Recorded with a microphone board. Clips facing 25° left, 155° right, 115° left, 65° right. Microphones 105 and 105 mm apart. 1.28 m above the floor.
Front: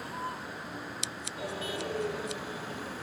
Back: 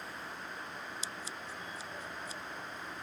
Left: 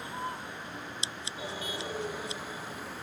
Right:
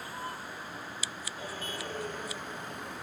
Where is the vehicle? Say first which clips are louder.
Front 7 dB, left 2 dB; 40° left; by 3.0 s 25° left.